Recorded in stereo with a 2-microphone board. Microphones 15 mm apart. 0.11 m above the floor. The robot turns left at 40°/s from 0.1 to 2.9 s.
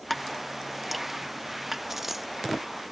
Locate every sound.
0.1 s dripping: 10° left (ahead or behind); by 1.8 s 20° right (ahead or behind)
1.9 s a dropped coin: 30° right (ahead or behind); by 2.3 s 15° right (ahead or behind)